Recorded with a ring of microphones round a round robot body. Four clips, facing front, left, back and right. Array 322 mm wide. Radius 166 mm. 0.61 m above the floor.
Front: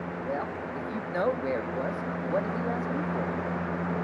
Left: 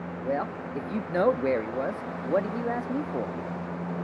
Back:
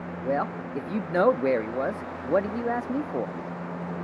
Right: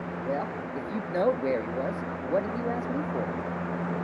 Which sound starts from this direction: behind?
A man speaking, at 0.2 s.